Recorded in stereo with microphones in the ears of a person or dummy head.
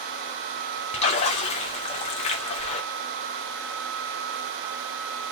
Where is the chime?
I don't hear a chime.